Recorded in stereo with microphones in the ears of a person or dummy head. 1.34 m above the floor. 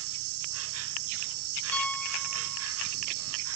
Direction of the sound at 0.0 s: 75° right (ahead or behind).